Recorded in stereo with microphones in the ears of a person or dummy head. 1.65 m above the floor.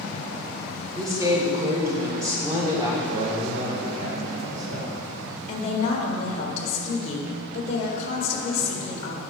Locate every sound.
0.9 s a woman speaking: 15° right (ahead or behind), 1.0 m
3.1 s a man speaking: 40° right (ahead or behind), 1.7 m
5.5 s a woman speaking: 40° left (ahead or behind), 1.4 m